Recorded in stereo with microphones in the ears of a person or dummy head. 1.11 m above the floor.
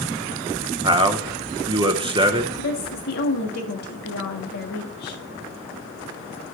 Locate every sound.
0.8 s a man speaking: 20° right (ahead or behind), 1.0 m
2.6 s a woman speaking: 70° left (ahead or behind), 1.5 m